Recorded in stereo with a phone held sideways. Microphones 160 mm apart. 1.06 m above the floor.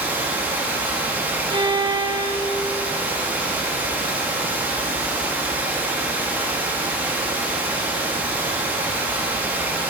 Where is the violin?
30° right (ahead or behind), 0.6 m.